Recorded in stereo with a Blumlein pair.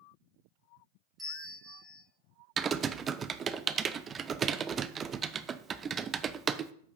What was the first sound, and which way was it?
A bell, 10° right.